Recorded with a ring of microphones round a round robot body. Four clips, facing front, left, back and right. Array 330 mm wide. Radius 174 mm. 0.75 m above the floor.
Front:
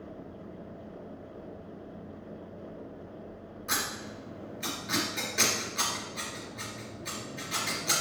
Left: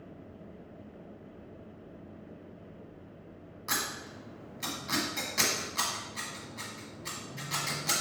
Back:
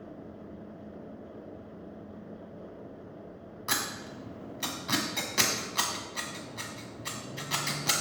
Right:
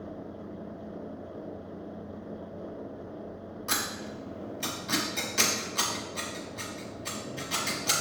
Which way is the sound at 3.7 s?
175° right.